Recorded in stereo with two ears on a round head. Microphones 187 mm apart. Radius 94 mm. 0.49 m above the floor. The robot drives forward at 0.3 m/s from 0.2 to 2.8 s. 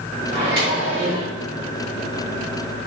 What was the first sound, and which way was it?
A microwave, 25° right (ahead or behind).